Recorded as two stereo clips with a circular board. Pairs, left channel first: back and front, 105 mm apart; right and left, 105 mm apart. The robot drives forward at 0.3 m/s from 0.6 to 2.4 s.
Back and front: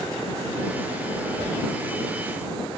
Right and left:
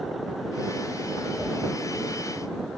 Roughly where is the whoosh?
Ahead.